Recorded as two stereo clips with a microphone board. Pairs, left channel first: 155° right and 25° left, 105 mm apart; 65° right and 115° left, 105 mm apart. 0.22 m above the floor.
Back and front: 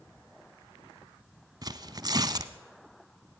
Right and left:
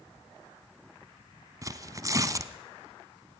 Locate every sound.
1.6 s tearing paper: 60° left, 0.7 m